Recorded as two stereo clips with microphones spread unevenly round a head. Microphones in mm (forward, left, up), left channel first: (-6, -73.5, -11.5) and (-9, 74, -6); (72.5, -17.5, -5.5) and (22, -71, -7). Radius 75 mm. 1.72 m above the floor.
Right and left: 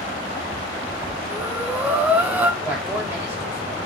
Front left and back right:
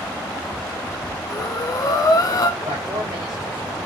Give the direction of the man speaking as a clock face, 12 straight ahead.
6 o'clock.